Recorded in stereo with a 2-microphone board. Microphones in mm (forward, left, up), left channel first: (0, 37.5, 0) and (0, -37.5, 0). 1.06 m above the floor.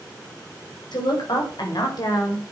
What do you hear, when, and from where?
0.9 s a woman speaking: 80° left, 5.5 m; by 2.5 s 55° left (ahead or behind), 3.5 m